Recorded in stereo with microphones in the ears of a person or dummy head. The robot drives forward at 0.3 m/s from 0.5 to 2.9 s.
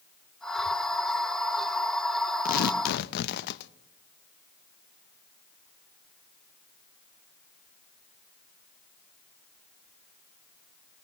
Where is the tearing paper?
55° left (ahead or behind), 0.7 m; by 3.7 s 60° left (ahead or behind), 0.7 m.